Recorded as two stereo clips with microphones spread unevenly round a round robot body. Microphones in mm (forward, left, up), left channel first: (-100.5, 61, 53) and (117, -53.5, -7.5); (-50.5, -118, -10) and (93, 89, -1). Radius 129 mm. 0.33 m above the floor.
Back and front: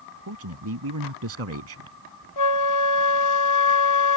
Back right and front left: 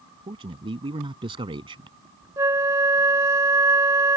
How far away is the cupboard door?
I don't hear a cupboard door.